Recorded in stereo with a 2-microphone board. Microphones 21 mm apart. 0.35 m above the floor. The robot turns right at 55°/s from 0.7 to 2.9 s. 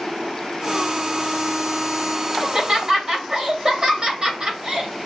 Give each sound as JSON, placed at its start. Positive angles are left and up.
{"t": 2.4, "sound": "laughter", "side_deg": -40, "distance_m": 2.0}